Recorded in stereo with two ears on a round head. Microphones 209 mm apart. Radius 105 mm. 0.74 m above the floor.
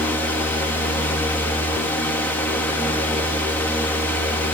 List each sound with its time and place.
Only background noise.